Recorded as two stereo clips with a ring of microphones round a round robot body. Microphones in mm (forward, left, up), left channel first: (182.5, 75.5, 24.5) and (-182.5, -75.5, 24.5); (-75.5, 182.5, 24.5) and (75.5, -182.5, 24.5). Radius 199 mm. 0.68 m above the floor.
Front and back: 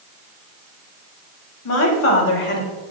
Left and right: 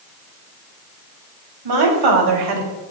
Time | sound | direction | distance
1.6 | a woman speaking | 30° right | 3.5 m